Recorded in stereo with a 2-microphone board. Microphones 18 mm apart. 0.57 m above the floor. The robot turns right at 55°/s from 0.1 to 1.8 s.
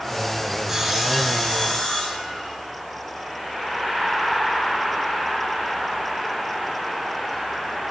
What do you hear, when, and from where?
0.7 s sawing: 20° right, 6.5 m; by 2.5 s 45° left, 6.5 m